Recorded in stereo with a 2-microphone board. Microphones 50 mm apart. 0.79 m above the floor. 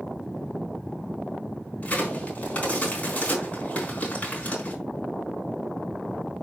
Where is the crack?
30° left (ahead or behind), 4 m.